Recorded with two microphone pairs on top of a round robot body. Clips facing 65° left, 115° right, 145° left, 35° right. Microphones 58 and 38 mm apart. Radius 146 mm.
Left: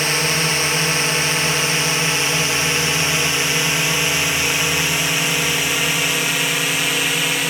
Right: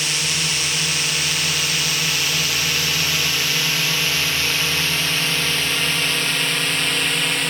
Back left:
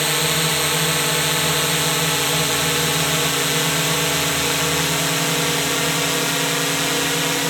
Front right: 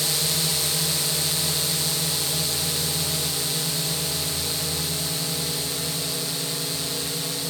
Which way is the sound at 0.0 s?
115° left.